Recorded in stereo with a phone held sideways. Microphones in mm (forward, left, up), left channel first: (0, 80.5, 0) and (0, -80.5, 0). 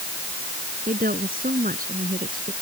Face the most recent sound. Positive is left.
turn(degrees=-60)  # may be behind; listen again after turning